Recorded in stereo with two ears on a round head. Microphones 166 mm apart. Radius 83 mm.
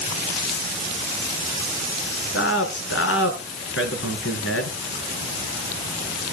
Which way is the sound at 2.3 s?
75° left (ahead or behind).